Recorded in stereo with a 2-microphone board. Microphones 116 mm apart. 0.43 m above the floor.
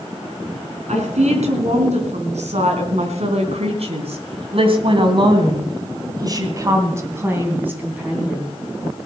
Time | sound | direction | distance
0.9 | a woman speaking | 80° right | 4 m